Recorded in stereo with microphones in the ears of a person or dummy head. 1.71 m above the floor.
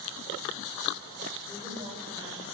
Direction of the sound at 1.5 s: 25° right (ahead or behind).